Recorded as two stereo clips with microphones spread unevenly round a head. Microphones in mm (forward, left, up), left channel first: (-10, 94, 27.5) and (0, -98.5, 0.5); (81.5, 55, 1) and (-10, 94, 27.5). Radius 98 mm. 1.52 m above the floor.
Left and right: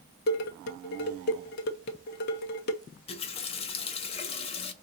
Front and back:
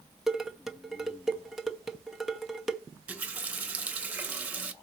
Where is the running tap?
115° left, 0.7 m.